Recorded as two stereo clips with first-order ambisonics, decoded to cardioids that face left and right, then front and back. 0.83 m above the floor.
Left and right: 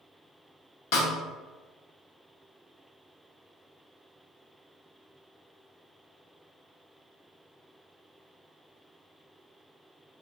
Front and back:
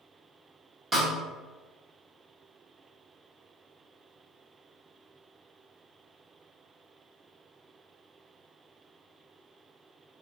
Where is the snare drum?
95° left, 1.0 m.